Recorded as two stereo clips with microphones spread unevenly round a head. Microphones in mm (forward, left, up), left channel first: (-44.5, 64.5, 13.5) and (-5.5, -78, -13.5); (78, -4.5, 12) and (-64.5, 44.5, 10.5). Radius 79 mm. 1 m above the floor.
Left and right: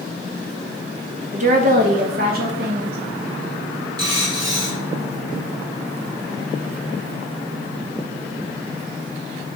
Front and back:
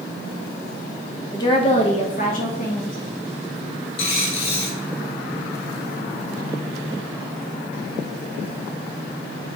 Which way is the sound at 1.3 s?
85° right.